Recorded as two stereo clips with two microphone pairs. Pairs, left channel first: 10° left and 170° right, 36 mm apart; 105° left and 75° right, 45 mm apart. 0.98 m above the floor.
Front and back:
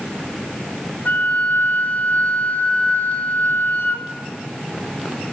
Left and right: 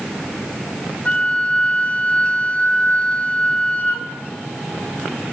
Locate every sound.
1.1 s a flute: 45° left, 1.8 m